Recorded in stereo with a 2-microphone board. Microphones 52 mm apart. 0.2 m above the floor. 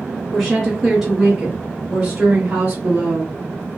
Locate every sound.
0.3 s a woman speaking: centre (ahead or behind), 1.8 m; by 3.4 s 45° right (ahead or behind), 2 m